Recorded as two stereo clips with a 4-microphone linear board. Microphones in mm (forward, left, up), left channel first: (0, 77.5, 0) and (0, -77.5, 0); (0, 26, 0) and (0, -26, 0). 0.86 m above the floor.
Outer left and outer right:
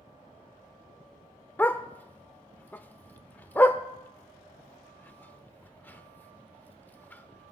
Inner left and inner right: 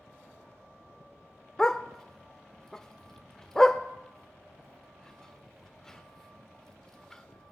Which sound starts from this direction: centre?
A dog barking, at 1.6 s.